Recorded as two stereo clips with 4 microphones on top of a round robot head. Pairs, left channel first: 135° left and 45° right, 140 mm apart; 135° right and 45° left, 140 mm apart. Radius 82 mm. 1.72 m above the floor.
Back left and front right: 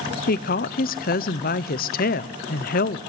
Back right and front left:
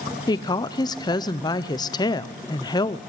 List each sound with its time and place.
0.3 s a woman speaking: 165° left, 0.8 m